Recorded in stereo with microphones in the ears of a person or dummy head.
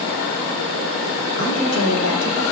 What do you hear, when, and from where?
1.4 s a woman speaking: 70° left (ahead or behind), 3 m; by 2.4 s 85° left, 3 m